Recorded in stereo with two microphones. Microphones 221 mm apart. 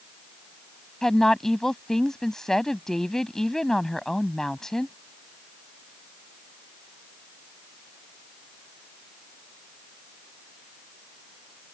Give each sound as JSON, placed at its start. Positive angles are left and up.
{"t": 1.0, "sound": "a woman speaking", "side_deg": 5}